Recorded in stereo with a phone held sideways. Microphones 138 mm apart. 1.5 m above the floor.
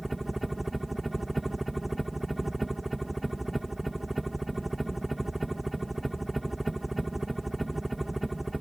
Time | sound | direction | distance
0.0 | a helicopter | centre (ahead or behind) | ?